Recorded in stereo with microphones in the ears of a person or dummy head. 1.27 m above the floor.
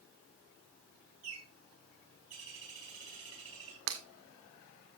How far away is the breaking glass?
About 1.7 m.